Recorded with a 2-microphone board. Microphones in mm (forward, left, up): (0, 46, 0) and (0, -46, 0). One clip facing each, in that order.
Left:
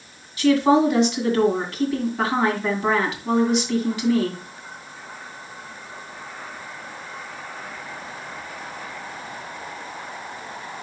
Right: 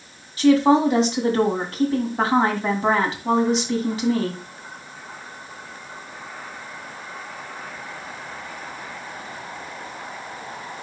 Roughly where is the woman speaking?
Right.